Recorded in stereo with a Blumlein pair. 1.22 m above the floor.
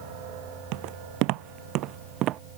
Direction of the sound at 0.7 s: 45° right.